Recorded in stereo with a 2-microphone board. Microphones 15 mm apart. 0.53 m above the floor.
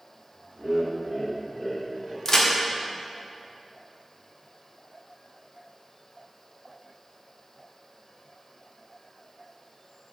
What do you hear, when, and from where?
0.6 s laughter: 40° right (ahead or behind), 1.2 m; by 2.1 s 20° left (ahead or behind), 2.0 m
2.2 s a crack: 30° left (ahead or behind), 0.9 m